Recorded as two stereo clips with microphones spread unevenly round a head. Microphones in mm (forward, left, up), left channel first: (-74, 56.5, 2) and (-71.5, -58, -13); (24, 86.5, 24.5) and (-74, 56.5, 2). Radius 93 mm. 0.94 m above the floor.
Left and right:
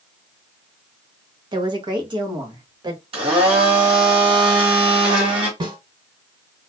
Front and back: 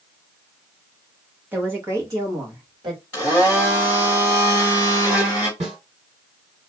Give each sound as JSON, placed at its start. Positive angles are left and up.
{"t": 1.5, "sound": "a woman speaking", "azimuth_deg": -100, "distance_m": 0.9}
{"t": 3.1, "sound": "a blender", "azimuth_deg": -65, "distance_m": 1.6}
{"t": 5.6, "sound": "a snare drum", "azimuth_deg": -140, "distance_m": 1.7}